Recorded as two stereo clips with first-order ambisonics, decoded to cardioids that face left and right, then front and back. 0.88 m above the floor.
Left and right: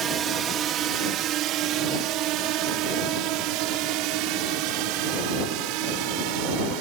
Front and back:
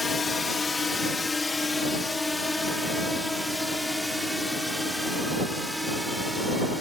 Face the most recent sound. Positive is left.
turn(degrees=-90)